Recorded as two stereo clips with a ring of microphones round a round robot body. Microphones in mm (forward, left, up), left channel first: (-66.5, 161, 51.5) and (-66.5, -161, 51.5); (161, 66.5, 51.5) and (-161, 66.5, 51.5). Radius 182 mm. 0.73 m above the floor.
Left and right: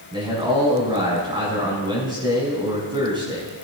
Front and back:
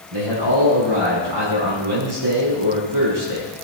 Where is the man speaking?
165° right, 6.5 m.